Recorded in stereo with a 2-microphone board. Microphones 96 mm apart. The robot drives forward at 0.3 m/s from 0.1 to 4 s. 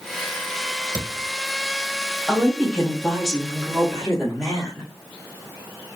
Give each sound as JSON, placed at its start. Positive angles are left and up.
{"t": 0.9, "sound": "a thud", "side_deg": -50, "distance_m": 1.0}
{"t": 2.3, "sound": "a woman speaking", "side_deg": -5, "distance_m": 0.9}